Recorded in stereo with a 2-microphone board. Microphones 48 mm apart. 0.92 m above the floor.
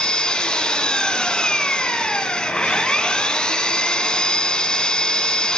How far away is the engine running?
About 2 m.